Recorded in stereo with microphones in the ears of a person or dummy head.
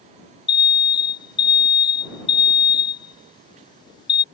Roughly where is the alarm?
Left.